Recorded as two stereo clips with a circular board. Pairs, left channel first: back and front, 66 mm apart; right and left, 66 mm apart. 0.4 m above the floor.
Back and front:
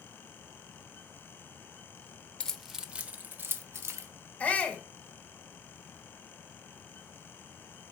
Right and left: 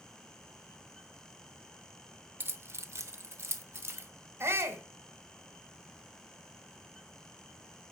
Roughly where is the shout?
Behind left.